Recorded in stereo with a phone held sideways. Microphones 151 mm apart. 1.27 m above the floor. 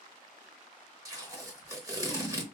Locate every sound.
1.1 s tape being pulled: 25° right (ahead or behind), 1.0 m